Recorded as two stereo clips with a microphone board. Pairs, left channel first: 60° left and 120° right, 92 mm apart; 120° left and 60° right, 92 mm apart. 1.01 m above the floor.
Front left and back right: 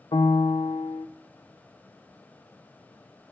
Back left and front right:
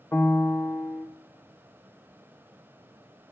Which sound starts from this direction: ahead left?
A piano, at 0.1 s.